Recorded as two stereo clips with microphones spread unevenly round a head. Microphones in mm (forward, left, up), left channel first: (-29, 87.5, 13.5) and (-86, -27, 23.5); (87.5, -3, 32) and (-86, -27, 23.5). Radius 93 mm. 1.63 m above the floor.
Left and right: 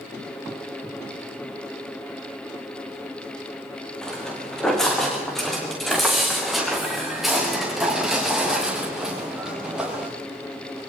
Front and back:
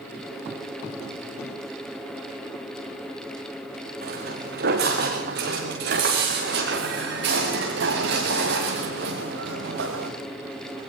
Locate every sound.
4.0 s footsteps: 150° left, 8.5 m; by 10.1 s 160° left, 11 m